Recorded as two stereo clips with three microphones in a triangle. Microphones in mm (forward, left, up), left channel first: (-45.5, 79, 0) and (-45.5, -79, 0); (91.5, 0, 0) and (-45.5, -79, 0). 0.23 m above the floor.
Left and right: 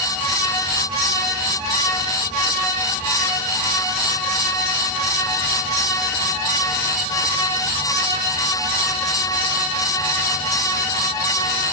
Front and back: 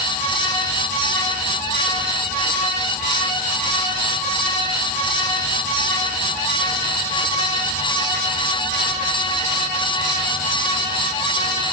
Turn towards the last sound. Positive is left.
No sound to turn to.